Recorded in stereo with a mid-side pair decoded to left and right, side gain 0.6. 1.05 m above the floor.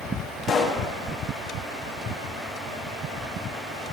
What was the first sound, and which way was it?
A pop, 45° left.